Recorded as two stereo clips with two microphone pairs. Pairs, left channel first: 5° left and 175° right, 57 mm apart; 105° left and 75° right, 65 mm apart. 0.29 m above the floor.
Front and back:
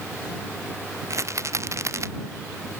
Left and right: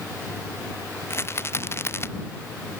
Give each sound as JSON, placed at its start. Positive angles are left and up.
{"t": 1.1, "sound": "a rattle", "azimuth_deg": 155}